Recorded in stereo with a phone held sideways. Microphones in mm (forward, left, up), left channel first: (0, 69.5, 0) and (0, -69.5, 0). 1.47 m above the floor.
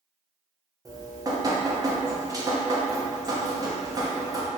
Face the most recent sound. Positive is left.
turn(degrees=-30)  # may be behind; listen again after turning